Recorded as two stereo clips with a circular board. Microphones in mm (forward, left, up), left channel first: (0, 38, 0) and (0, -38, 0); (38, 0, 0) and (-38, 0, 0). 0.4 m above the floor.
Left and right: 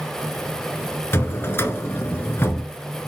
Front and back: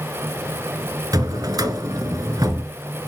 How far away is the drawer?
About 1.5 m.